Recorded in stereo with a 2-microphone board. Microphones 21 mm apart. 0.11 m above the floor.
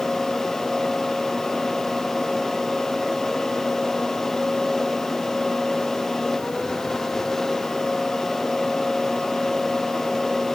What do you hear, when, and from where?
Only background noise.